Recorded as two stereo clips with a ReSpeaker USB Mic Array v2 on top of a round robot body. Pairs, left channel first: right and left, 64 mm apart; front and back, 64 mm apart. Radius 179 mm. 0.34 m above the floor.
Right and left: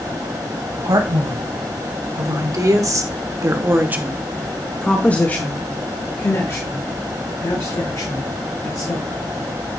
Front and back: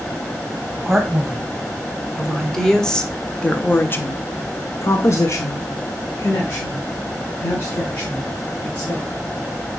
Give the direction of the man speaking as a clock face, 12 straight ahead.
9 o'clock.